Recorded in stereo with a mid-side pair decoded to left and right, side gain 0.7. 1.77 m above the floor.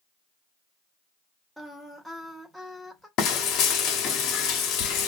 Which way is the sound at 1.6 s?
5° right.